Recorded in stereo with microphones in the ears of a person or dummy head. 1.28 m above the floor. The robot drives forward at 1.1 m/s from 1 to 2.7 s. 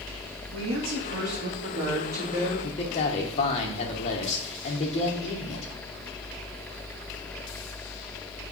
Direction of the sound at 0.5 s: 70° right (ahead or behind).